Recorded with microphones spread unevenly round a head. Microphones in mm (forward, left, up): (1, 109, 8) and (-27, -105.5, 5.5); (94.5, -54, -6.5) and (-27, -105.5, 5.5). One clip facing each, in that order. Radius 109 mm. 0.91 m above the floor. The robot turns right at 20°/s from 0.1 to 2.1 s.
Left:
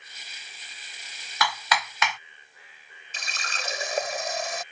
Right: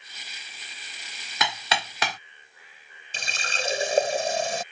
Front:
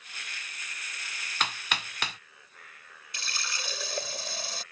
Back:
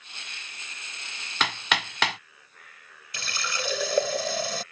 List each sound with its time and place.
1.4 s hammering: 165° right; by 2.2 s 155° right
3.1 s a running tap: 160° right